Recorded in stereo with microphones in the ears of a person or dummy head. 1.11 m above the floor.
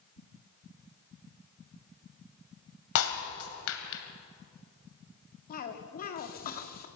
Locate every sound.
3.0 s breaking glass: 75° left (ahead or behind), 2.5 m
5.5 s a cough: 45° left (ahead or behind), 2 m